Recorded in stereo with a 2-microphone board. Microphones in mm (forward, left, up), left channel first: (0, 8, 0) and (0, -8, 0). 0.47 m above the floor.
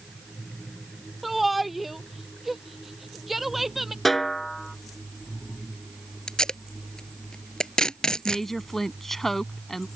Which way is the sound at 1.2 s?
5° right (ahead or behind).